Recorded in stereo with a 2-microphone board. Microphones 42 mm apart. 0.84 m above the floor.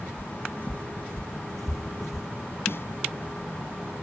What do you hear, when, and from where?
0.2 s footsteps: 40° left (ahead or behind); by 2.3 s 15° right (ahead or behind)
2.7 s a snare drum: 65° left (ahead or behind)